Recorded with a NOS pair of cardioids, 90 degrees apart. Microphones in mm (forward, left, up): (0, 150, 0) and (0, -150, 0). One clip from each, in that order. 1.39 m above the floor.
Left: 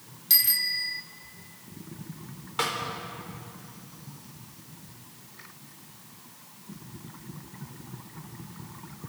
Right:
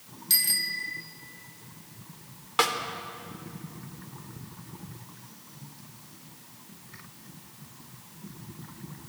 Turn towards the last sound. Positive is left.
turn(degrees=-40)